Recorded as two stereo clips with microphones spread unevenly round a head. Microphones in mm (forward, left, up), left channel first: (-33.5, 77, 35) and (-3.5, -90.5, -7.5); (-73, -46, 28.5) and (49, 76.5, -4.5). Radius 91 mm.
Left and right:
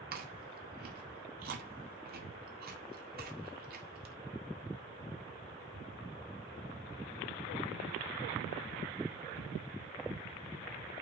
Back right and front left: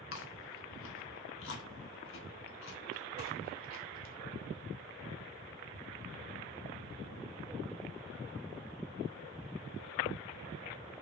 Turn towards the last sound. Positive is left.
turn(degrees=-110)